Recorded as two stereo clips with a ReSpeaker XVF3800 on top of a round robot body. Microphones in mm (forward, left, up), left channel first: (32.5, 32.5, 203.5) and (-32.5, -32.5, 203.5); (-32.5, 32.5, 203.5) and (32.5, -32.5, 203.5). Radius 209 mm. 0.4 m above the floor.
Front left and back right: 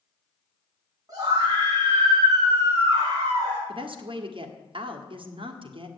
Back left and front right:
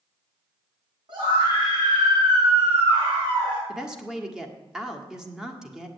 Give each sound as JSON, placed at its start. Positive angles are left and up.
{"t": 1.1, "sound": "a scream", "azimuth_deg": -80, "distance_m": 5.5}
{"t": 3.7, "sound": "a woman speaking", "azimuth_deg": -125, "distance_m": 1.8}